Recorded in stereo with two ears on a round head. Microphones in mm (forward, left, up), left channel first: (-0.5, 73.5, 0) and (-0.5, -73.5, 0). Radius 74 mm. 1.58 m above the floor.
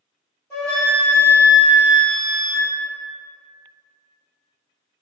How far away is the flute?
About 1.4 m.